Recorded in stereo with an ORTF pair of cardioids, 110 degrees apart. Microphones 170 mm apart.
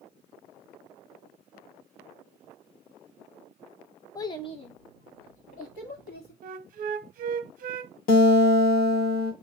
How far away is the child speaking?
About 0.7 m.